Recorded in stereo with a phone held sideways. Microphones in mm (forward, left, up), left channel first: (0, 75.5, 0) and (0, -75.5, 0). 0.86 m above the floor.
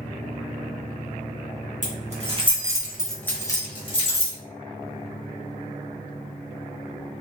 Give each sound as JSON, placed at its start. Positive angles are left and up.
{"t": 1.8, "sound": "keys jangling", "side_deg": -55, "distance_m": 0.9}